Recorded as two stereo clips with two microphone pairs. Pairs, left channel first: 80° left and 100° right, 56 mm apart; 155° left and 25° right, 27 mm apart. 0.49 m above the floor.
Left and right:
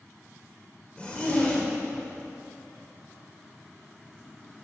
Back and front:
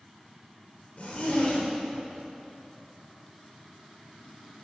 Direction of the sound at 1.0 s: 145° left.